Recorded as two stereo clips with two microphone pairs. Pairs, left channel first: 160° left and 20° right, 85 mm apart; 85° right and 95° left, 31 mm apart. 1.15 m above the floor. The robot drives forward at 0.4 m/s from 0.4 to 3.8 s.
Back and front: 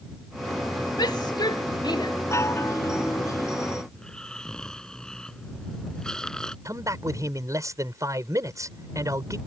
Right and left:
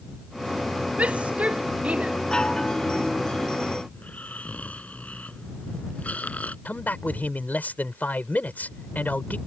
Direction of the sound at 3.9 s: 120° right.